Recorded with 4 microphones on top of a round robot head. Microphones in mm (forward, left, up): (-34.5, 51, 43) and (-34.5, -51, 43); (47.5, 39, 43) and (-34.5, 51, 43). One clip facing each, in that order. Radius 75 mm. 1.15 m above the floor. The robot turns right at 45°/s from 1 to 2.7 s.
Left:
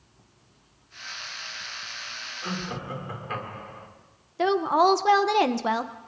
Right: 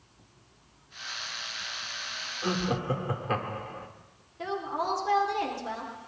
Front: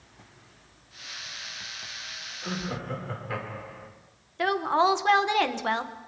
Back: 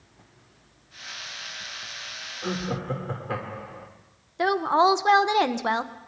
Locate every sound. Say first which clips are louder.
2.4 s laughter: right 5 dB, back 4 dB; 145° right, 2.5 m; by 3.9 s 135° right, 2.5 m
4.4 s a woman speaking: left 11 dB, back 3 dB; 100° left, 0.7 m